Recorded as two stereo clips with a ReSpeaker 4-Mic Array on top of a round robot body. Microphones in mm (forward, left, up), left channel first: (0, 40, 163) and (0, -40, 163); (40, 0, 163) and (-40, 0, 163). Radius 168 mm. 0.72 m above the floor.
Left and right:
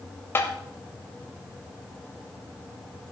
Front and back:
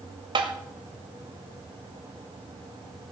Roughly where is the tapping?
Behind left.